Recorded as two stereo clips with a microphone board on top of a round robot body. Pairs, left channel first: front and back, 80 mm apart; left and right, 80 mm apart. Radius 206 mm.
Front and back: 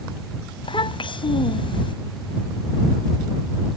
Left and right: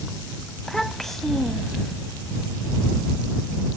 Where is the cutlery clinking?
No cutlery clinking in this recording.